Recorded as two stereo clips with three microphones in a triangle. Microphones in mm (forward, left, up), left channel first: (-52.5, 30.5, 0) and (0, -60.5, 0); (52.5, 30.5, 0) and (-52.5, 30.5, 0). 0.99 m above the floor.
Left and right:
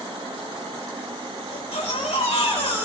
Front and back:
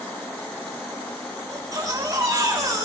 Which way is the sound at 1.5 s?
125° left.